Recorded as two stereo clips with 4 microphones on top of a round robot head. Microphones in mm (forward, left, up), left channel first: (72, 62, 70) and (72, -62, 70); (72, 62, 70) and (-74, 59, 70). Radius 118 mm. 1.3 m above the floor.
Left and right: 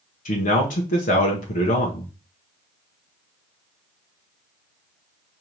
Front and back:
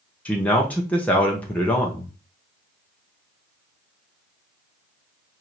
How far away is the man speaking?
About 1.0 m.